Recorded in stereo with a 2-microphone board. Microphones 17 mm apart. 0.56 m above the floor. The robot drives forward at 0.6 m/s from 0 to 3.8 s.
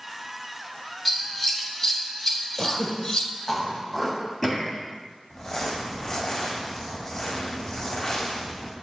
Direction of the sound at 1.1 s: 25° left (ahead or behind).